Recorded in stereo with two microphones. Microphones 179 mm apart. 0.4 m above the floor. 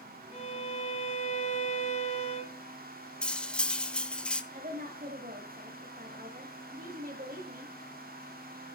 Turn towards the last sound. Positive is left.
turn(degrees=-55)  # may be behind; listen again after turning